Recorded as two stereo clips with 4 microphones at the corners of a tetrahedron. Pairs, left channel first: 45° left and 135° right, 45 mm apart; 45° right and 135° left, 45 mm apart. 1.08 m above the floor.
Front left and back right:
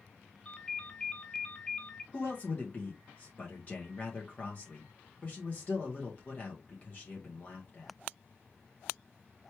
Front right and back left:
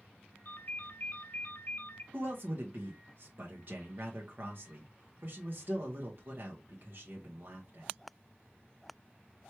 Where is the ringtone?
20° right, 0.7 m.